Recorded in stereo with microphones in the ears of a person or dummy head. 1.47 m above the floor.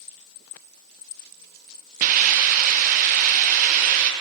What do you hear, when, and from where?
2.0 s a hiss: 45° right (ahead or behind), 0.9 m